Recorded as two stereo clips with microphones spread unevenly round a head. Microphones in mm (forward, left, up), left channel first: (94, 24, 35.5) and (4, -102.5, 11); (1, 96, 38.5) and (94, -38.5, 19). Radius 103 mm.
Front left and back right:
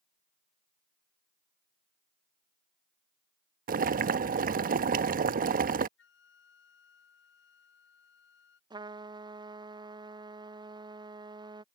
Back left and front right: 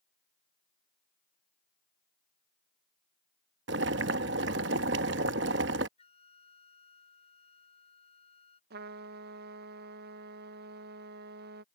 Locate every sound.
3.7 s boiling: 90° right
6.0 s a flute: 70° left
8.7 s a trumpet: 65° right